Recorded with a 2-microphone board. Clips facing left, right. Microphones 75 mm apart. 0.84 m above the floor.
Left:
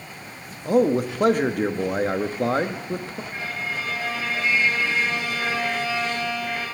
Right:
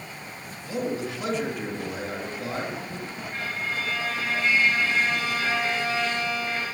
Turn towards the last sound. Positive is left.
turn(degrees=10)  # may be behind; listen again after turning